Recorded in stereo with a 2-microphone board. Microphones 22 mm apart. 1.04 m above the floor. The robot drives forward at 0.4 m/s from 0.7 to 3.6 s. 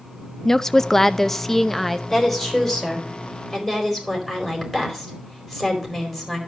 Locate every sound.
0.5 s a woman speaking: 20° left (ahead or behind), 0.5 m; by 2.0 s 10° left (ahead or behind), 1.0 m
2.1 s a woman speaking: 10° left (ahead or behind), 4 m; by 6.4 s 5° left (ahead or behind), 4.5 m